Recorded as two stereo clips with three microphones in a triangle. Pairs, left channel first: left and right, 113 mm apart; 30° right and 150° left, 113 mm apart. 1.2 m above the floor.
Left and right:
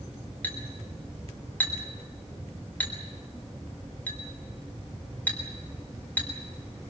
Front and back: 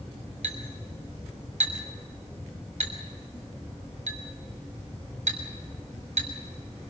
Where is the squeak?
No squeak in this recording.